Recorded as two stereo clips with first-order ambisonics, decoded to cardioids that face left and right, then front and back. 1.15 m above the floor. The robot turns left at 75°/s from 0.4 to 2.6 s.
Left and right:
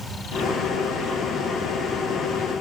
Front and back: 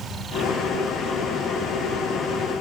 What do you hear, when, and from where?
Only background noise.